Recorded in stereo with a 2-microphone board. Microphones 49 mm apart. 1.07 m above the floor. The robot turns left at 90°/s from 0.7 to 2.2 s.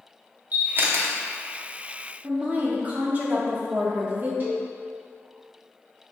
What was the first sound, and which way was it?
A camera shutter, 35° right (ahead or behind).